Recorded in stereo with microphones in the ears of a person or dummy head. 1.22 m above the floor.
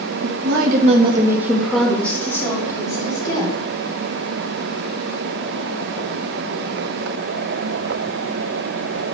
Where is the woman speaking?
75° right (ahead or behind), 1.6 m; by 3.6 s 25° left (ahead or behind), 4.5 m.